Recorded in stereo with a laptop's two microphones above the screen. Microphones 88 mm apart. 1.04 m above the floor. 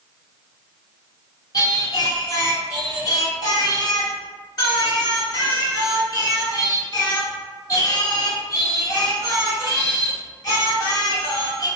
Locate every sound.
1.5 s singing: 45° left (ahead or behind), 0.8 m